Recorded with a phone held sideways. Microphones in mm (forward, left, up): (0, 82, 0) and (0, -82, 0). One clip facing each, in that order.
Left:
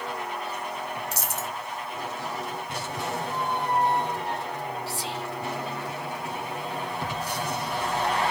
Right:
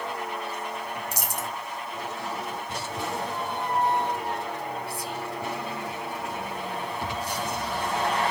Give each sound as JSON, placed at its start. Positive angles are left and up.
{"t": 1.1, "sound": "a dropped coin", "side_deg": -15, "distance_m": 1.0}
{"t": 3.3, "sound": "a squeak", "side_deg": 70, "distance_m": 3.5}
{"t": 4.9, "sound": "whispering", "side_deg": 85, "distance_m": 1.2}